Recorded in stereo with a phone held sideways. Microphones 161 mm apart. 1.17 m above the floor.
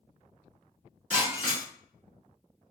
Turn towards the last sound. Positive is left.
turn(degrees=-50)  # may be behind; listen again after turning